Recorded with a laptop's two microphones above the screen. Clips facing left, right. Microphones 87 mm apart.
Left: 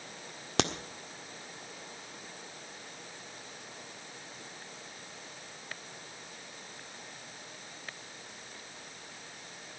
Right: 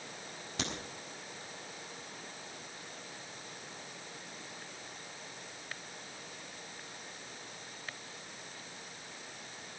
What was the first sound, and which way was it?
A crack, 75° left (ahead or behind).